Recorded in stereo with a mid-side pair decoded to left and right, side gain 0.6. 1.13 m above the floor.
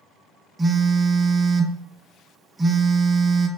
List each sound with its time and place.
0.6 s a phone buzzing: 20° right, 0.5 m